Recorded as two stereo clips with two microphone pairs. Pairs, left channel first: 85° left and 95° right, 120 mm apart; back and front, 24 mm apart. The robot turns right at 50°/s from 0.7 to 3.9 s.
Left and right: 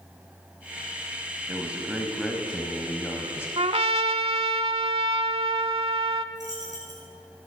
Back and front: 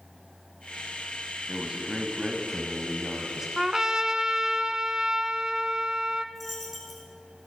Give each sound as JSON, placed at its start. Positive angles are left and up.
{"t": 1.5, "sound": "a man speaking", "azimuth_deg": -40, "distance_m": 1.4}
{"t": 3.6, "sound": "a trumpet", "azimuth_deg": -75, "distance_m": 0.6}
{"t": 6.3, "sound": "a dropped coin", "azimuth_deg": -90, "distance_m": 4.0}